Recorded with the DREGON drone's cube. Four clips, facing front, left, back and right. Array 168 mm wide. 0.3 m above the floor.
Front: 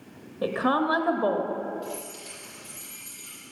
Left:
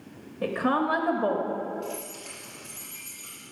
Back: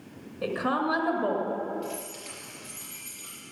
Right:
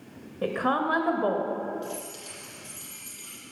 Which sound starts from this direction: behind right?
Keys jangling, at 1.8 s.